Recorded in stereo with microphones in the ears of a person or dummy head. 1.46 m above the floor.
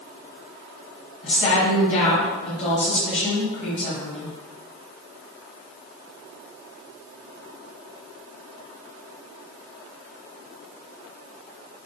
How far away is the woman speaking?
About 1.0 m.